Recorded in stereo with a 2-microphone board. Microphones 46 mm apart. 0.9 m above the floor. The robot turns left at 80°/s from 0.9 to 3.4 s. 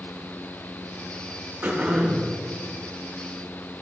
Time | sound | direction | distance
1.6 | throat clearing | 125° right | 1.5 m